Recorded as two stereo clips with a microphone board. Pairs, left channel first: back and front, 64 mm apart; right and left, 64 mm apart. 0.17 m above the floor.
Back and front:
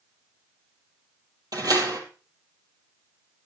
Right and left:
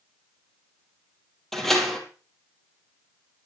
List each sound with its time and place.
1.5 s a door slam: 5° right, 3.5 m